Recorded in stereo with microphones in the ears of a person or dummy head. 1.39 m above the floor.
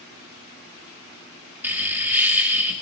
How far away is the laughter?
About 2.5 m.